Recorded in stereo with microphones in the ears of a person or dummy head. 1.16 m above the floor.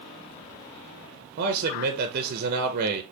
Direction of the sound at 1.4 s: 50° right (ahead or behind).